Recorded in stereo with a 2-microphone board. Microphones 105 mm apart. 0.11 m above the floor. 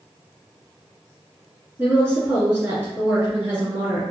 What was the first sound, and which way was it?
A woman speaking, 20° right (ahead or behind).